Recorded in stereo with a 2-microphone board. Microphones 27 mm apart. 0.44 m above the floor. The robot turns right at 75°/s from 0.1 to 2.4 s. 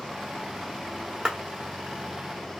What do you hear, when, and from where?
1.2 s a clap: 35° right (ahead or behind), 1.2 m